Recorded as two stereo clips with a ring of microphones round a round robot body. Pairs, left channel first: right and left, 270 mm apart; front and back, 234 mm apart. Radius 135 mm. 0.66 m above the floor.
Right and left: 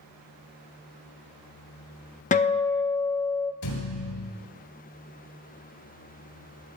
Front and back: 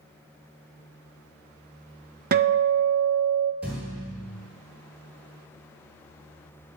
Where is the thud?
95° right, 1.7 m.